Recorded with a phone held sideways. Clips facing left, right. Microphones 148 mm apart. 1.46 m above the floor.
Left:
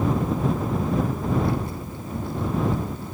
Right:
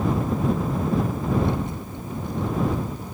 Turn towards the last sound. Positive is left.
turn(degrees=-15)  # may be behind; listen again after turning